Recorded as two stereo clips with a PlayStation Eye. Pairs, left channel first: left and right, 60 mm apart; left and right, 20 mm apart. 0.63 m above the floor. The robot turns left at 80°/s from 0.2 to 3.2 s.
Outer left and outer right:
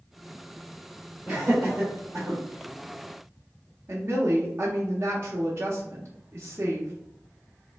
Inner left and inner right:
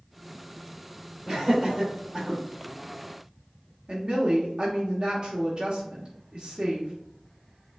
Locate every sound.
1.3 s laughter: 30° right (ahead or behind), 1.7 m; by 2.4 s 40° right (ahead or behind), 1.7 m
3.9 s a woman speaking: 40° right (ahead or behind), 0.7 m